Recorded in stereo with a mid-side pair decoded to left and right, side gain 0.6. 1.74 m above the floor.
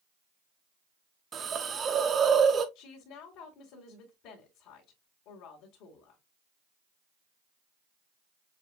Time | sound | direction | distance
1.3 | a hiss | 40° right | 0.9 m
2.8 | a woman speaking | 65° left | 2 m